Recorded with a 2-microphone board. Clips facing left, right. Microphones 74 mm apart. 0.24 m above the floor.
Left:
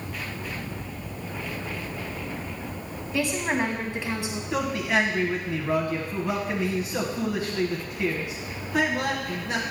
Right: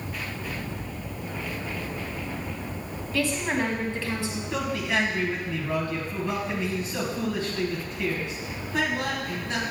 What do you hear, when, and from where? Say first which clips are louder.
3.1 s a woman speaking: left 1 dB; 20° left (ahead or behind), 1.3 m
4.5 s a man speaking: left 3 dB; 10° left (ahead or behind), 1.5 m